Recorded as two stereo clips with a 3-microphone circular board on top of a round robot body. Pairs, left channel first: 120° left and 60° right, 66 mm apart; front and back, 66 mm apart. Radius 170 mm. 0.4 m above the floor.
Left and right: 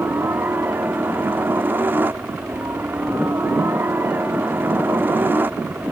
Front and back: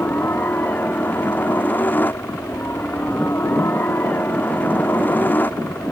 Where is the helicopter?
35° right.